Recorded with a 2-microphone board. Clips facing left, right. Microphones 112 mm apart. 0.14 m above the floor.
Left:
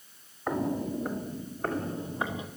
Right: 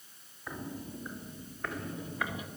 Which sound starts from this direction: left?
Footsteps, at 0.5 s.